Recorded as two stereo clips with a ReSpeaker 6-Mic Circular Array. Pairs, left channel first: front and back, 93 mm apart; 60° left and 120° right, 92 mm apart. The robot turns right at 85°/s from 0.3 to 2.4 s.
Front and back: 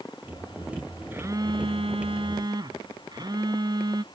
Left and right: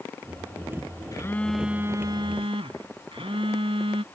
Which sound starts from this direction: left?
A phone buzzing, at 1.1 s.